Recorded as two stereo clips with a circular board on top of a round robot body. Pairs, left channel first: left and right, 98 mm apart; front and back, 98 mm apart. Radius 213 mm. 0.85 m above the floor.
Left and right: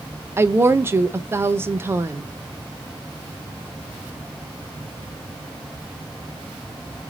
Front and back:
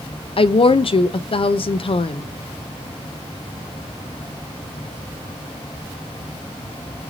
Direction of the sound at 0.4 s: 25° right.